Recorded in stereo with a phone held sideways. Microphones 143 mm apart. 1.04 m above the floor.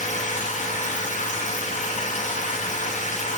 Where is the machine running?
60° left (ahead or behind), 0.7 m.